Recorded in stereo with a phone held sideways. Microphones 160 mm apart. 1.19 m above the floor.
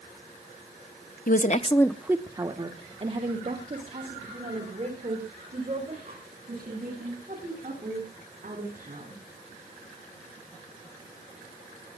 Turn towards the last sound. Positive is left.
turn(degrees=-50)  # may be behind; listen again after turning